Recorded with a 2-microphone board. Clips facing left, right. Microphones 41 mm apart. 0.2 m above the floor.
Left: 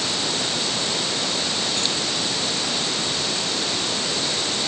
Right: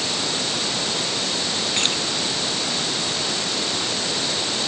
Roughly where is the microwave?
I don't hear a microwave.